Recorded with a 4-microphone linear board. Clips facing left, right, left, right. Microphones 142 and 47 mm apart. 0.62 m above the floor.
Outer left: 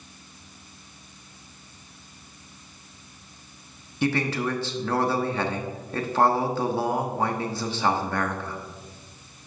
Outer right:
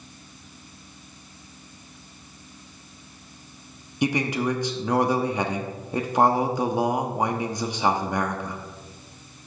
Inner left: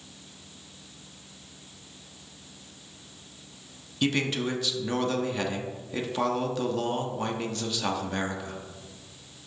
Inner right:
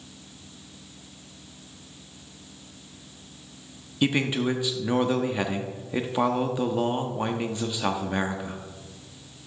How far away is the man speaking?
About 0.9 m.